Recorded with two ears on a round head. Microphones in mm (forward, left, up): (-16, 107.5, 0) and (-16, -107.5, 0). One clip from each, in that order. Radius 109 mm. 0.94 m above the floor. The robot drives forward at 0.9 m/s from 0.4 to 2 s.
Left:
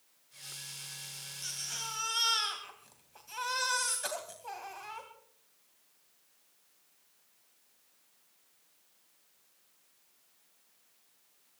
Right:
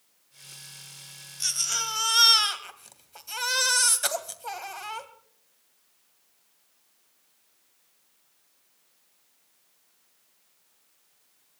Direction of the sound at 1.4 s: 60° right (ahead or behind).